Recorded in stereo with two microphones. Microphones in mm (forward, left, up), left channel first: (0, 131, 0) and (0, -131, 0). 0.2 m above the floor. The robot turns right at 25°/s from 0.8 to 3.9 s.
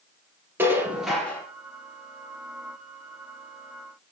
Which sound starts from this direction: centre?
Dishes clattering, at 0.6 s.